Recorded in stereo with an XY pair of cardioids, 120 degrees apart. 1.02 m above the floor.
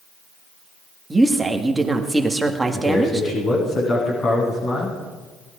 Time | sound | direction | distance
1.1 | a woman speaking | 10° right | 1.8 m
2.7 | a man speaking | 50° left | 9.5 m